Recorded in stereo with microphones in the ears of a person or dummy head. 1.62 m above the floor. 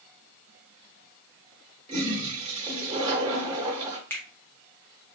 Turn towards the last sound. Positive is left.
turn(degrees=5)  # may be behind; listen again after turning